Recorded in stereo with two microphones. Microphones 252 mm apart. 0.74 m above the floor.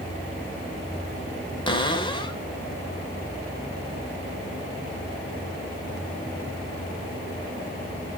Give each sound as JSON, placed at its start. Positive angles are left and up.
{"t": 1.7, "sound": "a cupboard door", "side_deg": 20, "distance_m": 2.0}